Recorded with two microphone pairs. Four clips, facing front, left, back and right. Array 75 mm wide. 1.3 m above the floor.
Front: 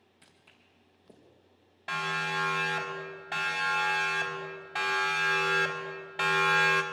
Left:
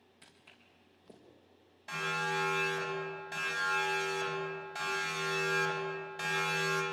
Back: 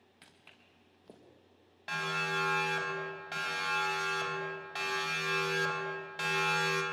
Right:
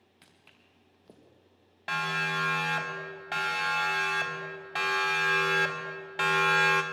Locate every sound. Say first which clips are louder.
0.2 s footsteps: even, back 2 dB; 155° right, 4.5 m
1.9 s a siren: right 4 dB, front 3 dB; 90° right, 7 m; by 6.8 s 65° right, 3.5 m